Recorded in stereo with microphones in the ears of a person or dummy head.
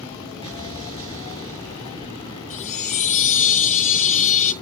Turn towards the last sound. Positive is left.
turn(degrees=45)  # may be behind; listen again after turning